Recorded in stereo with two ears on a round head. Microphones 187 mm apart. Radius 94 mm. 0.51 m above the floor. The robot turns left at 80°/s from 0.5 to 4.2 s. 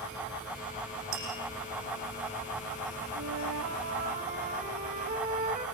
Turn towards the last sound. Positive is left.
turn(degrees=-140)